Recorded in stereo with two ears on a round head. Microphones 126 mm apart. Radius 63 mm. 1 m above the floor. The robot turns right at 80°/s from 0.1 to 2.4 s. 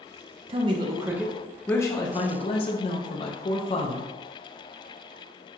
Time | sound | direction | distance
0.5 | a man speaking | 75° right | 0.5 m